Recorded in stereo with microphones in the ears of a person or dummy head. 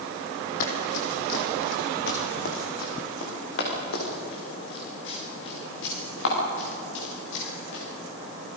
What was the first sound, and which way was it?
Running footsteps, 50° left (ahead or behind).